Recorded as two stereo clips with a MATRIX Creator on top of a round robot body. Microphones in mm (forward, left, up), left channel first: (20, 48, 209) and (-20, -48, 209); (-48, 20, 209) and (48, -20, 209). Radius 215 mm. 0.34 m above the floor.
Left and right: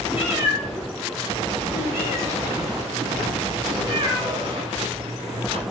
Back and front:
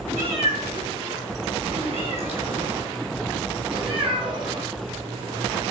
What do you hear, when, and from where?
0.1 s a cat meowing: 40° right, 5 m; by 5.6 s 85° right, 2.5 m